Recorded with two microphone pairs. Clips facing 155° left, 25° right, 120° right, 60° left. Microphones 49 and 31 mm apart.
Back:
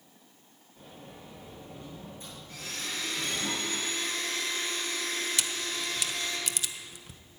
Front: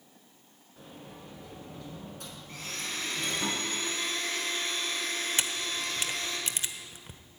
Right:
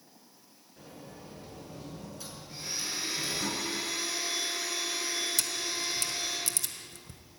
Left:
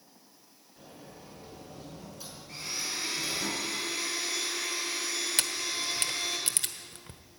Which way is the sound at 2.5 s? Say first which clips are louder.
Even, left 1 dB; 25° left.